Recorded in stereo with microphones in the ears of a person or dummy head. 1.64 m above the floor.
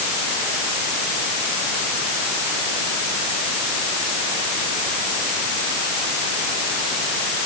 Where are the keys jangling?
No keys jangling in this recording.